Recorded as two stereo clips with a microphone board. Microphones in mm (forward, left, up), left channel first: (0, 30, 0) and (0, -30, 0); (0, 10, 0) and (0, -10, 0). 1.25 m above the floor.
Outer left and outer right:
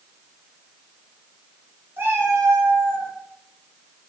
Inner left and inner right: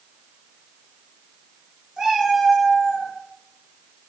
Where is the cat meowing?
35° right (ahead or behind), 0.5 m; by 3.1 s 30° right (ahead or behind), 1.1 m.